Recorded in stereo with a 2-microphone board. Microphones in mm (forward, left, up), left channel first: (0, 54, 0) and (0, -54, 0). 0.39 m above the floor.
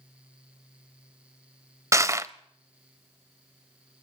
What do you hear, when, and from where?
1.9 s crushing: 30° right (ahead or behind), 0.5 m